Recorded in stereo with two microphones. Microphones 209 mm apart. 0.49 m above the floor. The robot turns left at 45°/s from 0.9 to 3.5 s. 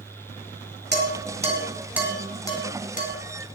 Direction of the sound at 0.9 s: 55° right (ahead or behind).